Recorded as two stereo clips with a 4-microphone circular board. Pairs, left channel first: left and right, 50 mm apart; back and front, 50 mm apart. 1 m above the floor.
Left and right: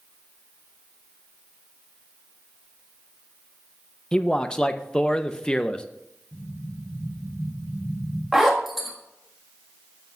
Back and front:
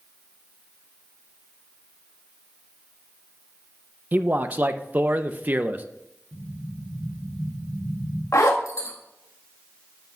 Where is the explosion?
90° left, 3.5 m.